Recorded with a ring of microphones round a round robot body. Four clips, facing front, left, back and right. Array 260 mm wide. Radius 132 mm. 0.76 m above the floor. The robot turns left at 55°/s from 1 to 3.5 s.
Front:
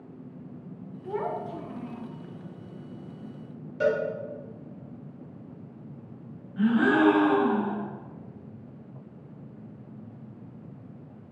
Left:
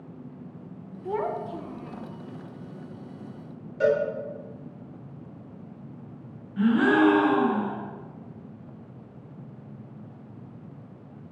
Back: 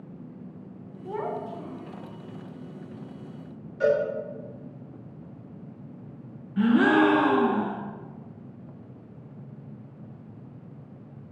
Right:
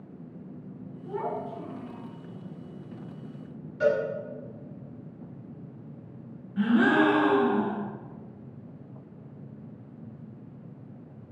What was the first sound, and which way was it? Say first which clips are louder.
A child speaking: left 3 dB, even; 90° left.